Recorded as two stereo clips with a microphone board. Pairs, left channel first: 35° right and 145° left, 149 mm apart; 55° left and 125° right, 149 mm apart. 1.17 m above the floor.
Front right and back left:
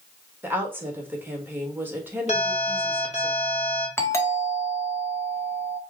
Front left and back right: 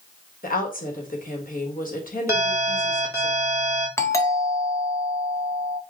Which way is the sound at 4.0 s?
15° left.